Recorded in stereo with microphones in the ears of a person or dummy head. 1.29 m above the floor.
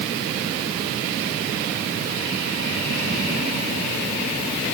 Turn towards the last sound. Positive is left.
No sound to turn to.